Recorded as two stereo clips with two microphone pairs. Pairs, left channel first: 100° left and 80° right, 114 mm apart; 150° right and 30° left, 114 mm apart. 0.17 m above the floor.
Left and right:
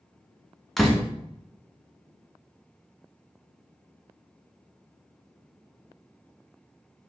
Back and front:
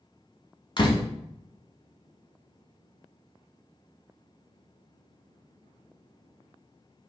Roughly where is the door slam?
Behind.